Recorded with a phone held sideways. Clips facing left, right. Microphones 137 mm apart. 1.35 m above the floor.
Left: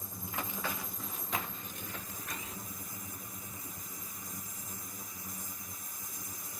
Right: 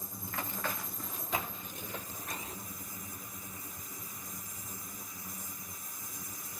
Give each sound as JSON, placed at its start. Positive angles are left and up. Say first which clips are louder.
{"t": 0.2, "sound": "running footsteps", "louder": "even", "side_deg": 20, "distance_m": 1.8}